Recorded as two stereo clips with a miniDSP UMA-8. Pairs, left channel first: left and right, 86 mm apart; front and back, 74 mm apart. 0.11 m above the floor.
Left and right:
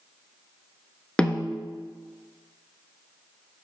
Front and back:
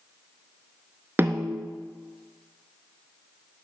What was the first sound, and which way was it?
A snare drum, 160° left.